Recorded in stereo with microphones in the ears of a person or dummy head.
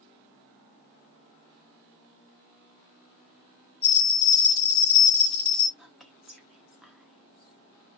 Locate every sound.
3.8 s a bell: 20° left (ahead or behind), 1.0 m
5.8 s whispering: centre (ahead or behind), 0.9 m